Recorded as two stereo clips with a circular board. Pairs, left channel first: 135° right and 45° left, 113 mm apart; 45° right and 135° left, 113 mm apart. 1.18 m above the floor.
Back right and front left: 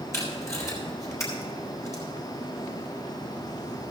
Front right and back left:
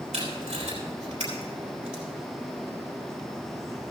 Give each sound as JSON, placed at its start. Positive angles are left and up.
{"t": 0.1, "sound": "tape being pulled", "azimuth_deg": 160, "distance_m": 3.5}